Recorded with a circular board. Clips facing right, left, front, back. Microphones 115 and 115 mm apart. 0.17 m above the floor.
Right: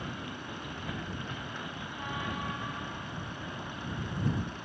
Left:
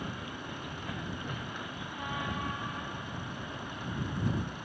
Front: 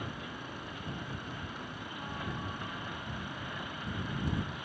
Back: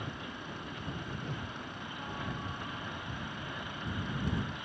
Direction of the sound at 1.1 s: 170° left.